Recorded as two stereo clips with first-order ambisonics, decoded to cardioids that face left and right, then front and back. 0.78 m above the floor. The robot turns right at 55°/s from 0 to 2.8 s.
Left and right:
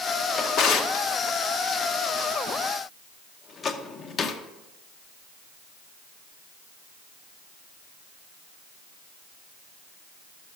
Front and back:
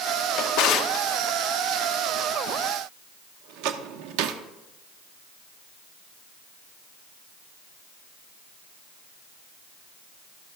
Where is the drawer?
25° left, 0.8 m; by 4.4 s 155° left, 0.8 m.